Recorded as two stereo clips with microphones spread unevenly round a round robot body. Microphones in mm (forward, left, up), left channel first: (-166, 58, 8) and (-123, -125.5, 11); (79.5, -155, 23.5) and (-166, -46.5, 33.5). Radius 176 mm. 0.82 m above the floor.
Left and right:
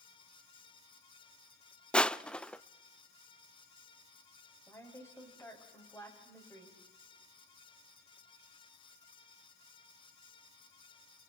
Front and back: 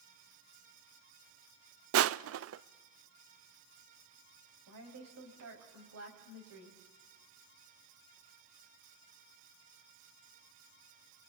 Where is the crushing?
175° right, 0.6 m.